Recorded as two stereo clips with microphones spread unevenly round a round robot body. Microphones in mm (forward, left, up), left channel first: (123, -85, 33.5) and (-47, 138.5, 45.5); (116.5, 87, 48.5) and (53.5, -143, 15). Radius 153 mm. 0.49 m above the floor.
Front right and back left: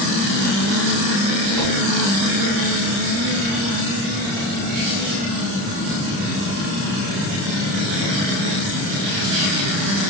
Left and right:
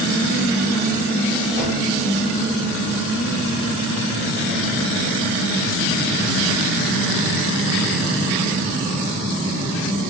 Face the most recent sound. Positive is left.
turn(degrees=155)